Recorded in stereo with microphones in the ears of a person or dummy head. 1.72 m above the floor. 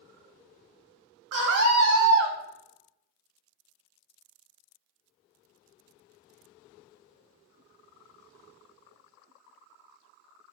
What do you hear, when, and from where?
1.3 s a scream: 55° right (ahead or behind), 2.5 m